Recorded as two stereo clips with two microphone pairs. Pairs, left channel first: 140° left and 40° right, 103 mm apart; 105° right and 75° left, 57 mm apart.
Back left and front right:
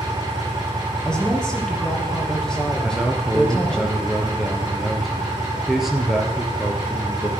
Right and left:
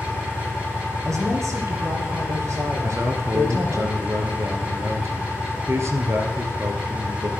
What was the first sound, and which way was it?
An engine running, 10° left.